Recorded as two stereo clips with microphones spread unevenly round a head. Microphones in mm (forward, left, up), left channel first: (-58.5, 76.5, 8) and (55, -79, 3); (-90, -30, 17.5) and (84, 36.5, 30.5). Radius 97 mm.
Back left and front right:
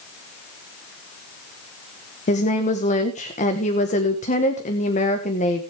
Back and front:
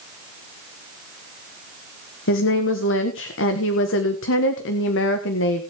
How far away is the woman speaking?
About 1.4 m.